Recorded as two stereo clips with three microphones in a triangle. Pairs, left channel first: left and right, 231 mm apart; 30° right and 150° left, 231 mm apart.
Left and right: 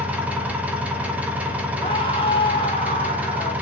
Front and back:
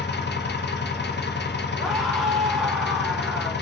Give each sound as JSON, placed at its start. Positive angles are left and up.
{"t": 0.0, "sound": "an engine running", "azimuth_deg": -5, "distance_m": 0.7}
{"t": 1.8, "sound": "a scream", "azimuth_deg": 60, "distance_m": 1.1}